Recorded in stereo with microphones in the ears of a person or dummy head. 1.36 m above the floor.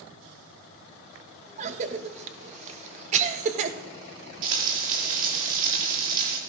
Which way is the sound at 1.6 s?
40° right (ahead or behind).